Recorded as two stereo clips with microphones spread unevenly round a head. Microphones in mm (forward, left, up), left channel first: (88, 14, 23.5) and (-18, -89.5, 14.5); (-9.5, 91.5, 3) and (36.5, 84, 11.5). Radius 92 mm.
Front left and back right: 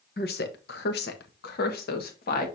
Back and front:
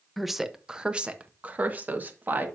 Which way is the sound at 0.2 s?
80° left.